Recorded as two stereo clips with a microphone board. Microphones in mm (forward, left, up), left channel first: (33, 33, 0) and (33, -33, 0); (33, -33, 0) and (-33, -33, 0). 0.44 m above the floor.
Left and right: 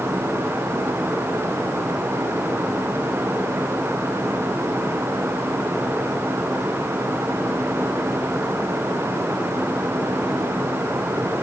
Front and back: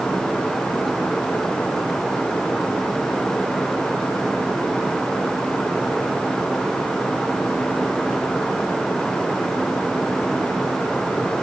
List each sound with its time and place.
Only background noise.